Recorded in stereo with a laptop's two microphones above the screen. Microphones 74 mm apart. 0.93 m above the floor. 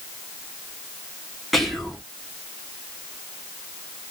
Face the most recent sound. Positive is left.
turn(degrees=0)  # may be behind; listen again after turning